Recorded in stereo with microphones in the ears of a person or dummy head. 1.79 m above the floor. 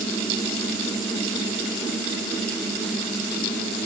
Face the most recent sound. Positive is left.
No sound to turn to.